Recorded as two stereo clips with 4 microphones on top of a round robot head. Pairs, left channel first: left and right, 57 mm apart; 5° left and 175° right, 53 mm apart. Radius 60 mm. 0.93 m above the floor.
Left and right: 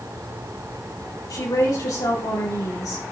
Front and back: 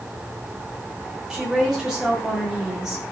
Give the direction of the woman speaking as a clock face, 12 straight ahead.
8 o'clock.